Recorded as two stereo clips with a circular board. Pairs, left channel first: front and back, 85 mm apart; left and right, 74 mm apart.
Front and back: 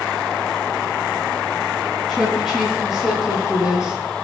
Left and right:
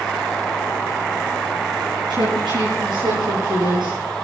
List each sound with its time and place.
2.1 s a woman speaking: 85° right, 9.5 m; by 4.0 s 95° right, 9.5 m